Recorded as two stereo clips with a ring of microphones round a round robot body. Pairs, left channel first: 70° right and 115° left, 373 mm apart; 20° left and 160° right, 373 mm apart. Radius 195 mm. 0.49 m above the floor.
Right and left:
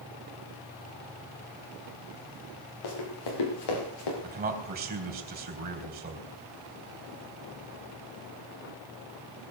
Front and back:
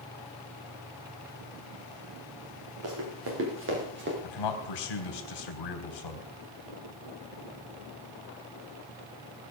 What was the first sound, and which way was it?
Running footsteps, 100° right.